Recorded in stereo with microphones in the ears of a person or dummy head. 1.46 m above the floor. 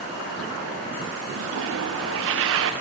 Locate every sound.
1.3 s a toilet flushing: 75° right (ahead or behind), 1.2 m